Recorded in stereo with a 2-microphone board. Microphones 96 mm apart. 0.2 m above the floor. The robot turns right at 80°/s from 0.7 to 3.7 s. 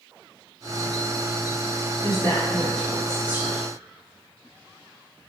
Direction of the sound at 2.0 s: 30° left (ahead or behind).